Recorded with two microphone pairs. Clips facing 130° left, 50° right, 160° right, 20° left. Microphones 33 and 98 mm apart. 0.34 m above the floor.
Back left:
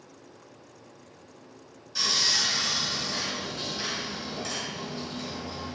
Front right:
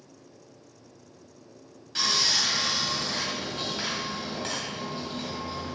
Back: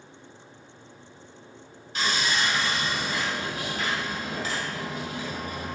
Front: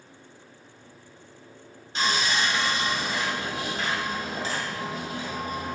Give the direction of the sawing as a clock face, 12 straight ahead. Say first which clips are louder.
Front right 1 dB, front 1 dB; 1 o'clock.